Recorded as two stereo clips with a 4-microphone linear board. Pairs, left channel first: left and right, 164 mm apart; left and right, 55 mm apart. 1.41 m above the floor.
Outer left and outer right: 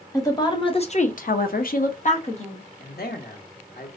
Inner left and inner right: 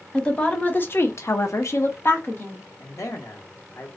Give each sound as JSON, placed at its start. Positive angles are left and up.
{"t": 0.1, "sound": "a woman speaking", "side_deg": 20, "distance_m": 0.8}
{"t": 2.8, "sound": "a man speaking", "side_deg": 70, "distance_m": 0.7}